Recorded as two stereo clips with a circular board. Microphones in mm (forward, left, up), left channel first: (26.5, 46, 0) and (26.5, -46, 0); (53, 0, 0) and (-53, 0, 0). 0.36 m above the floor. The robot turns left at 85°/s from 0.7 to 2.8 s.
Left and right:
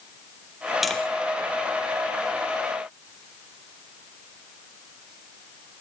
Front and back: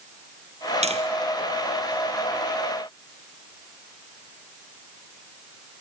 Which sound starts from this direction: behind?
Tapping, at 0.8 s.